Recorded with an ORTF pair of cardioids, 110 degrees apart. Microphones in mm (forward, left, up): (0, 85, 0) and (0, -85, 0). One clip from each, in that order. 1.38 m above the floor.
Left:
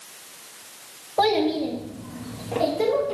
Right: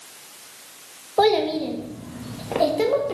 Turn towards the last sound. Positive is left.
turn(degrees=-50)